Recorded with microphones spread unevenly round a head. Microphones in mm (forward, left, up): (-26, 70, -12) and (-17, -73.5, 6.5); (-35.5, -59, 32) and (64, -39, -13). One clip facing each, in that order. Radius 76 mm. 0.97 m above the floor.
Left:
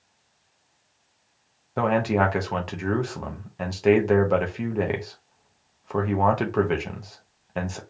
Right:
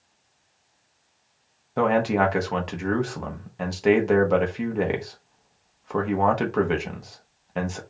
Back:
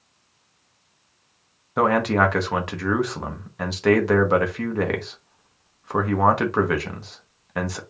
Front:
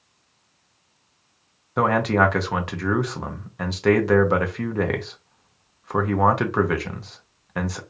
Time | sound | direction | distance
1.8 | a man speaking | 20° left | 0.8 m